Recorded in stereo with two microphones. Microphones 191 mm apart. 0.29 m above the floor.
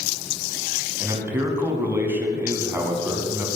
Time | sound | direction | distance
1.0 | a man speaking | 10° right (ahead or behind) | 2 m